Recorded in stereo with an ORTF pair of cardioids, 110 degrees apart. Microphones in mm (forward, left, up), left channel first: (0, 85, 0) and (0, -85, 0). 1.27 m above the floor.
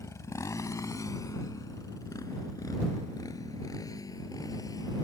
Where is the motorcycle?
15° left; by 5.0 s 20° left.